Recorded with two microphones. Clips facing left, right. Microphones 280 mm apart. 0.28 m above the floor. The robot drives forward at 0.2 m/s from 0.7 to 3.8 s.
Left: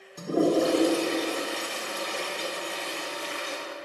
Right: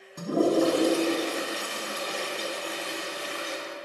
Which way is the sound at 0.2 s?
60° right (ahead or behind).